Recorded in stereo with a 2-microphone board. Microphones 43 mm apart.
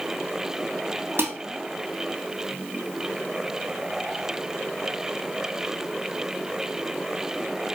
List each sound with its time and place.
1.2 s dishes clattering: 65° right (ahead or behind), 2.5 m